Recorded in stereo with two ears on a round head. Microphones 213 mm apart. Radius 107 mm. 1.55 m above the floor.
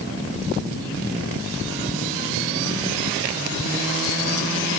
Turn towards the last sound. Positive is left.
No sound to turn to.